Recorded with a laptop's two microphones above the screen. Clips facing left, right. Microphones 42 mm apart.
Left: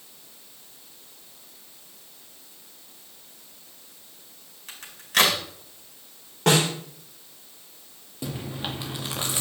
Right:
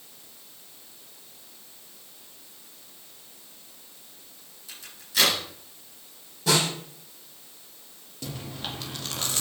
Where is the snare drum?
65° left (ahead or behind), 5 m.